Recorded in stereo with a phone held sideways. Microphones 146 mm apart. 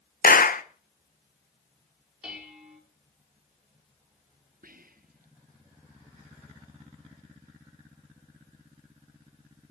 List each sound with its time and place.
0.2 s a clap: 75° left (ahead or behind), 0.6 m
2.2 s dishes clattering: 5° right (ahead or behind), 2.0 m
4.6 s whispering: 75° right (ahead or behind), 0.8 m